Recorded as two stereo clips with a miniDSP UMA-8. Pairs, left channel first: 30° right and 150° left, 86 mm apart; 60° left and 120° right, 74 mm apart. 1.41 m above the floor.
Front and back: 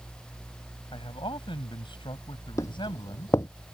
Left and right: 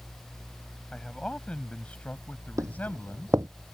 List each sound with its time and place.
0.9 s a man speaking: 20° right; by 3.4 s 5° right
2.6 s footsteps: 80° right